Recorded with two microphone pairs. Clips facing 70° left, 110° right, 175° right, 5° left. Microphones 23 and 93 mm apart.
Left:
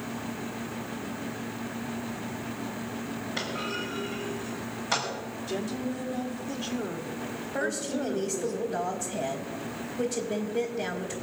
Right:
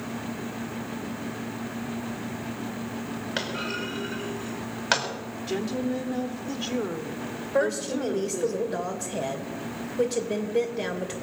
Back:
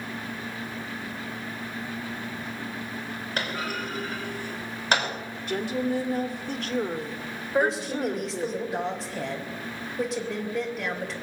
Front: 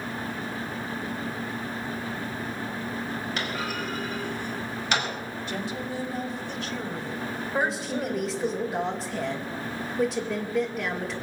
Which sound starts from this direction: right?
A woman speaking, at 7.5 s.